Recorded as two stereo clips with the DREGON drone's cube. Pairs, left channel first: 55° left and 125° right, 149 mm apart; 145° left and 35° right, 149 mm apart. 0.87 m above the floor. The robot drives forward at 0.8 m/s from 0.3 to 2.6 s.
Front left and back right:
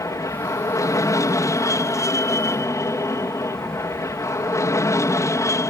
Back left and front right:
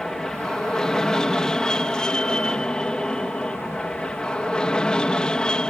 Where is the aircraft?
65° left; by 5.7 s 75° left.